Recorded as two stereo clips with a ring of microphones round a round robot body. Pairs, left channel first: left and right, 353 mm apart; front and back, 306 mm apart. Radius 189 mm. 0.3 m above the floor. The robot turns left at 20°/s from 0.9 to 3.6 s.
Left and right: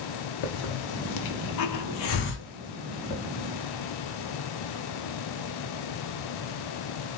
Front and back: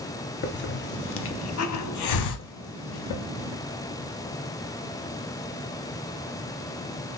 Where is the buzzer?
I don't hear a buzzer.